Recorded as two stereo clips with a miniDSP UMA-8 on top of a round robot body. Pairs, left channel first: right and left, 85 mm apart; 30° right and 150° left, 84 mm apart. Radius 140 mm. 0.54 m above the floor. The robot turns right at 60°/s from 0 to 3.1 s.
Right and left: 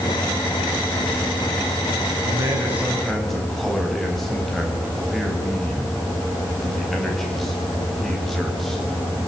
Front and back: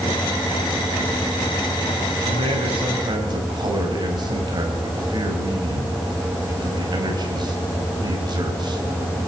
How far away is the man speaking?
About 4.5 m.